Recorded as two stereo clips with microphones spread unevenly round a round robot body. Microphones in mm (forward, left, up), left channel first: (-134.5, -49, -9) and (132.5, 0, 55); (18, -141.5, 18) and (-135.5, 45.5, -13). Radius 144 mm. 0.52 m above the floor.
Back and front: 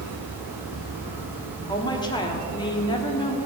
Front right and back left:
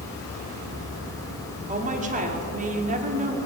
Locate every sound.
1.7 s a woman speaking: 145° left, 1.3 m